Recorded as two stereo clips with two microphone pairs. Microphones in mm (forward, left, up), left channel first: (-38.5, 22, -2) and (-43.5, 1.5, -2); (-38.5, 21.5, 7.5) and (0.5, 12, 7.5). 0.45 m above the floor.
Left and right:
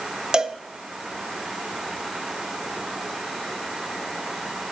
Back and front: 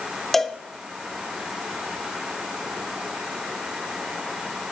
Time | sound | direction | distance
0.3 | a cowbell | 120° right | 0.7 m